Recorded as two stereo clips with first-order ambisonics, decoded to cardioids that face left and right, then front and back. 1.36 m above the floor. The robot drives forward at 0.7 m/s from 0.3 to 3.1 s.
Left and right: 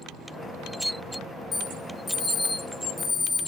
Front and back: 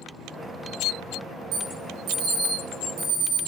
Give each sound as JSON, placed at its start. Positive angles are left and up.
{"t": 1.5, "sound": "an alarm", "azimuth_deg": 150, "distance_m": 2.5}